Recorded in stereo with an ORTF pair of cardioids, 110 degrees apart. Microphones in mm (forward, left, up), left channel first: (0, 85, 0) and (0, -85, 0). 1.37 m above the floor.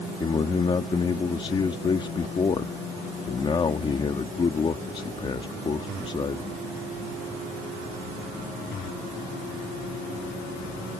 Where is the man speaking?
30° left.